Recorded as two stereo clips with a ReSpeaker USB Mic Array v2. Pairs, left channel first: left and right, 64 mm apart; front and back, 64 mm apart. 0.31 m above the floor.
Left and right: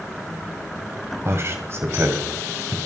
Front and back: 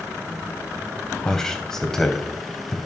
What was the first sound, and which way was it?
A man speaking, 80° right.